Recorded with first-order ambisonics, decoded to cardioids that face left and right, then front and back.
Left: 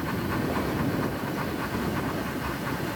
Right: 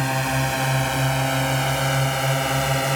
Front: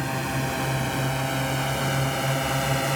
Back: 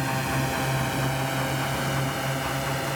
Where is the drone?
95° right; by 3.0 s 70° right.